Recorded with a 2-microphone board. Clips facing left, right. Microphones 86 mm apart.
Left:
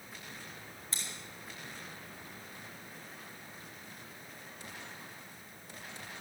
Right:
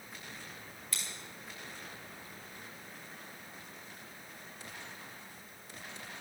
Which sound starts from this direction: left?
Scissors, at 0.9 s.